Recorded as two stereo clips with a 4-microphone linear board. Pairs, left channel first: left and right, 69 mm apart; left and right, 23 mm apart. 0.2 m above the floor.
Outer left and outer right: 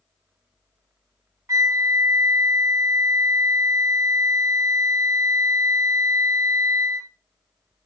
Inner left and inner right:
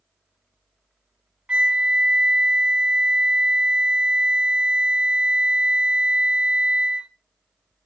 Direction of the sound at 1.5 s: 50° right (ahead or behind).